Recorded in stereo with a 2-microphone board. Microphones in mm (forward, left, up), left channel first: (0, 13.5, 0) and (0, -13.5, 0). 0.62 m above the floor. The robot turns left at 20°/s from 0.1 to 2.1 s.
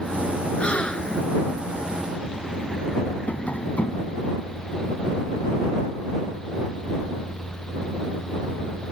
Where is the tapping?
75° left (ahead or behind).